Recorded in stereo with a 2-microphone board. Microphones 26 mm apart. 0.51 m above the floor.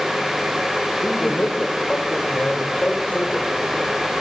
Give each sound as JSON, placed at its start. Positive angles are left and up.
{"t": 1.0, "sound": "a man speaking", "side_deg": 60, "distance_m": 2.0}